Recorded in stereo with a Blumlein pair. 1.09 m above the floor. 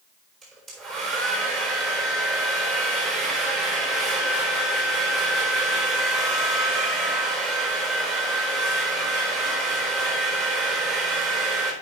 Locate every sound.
0.4 s a hair dryer: 25° right, 4 m